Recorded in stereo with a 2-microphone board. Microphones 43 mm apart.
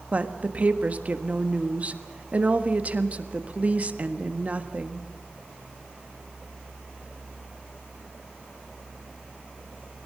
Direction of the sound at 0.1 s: 35° right (ahead or behind).